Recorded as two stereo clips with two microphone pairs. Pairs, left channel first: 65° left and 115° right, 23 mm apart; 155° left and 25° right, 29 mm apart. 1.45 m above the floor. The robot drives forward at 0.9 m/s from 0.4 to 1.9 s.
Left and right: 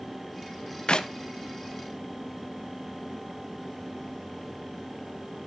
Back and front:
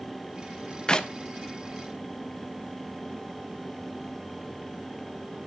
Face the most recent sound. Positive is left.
turn(degrees=140)